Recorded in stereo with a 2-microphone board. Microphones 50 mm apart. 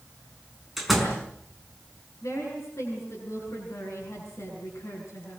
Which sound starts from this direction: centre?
A door slam, at 0.8 s.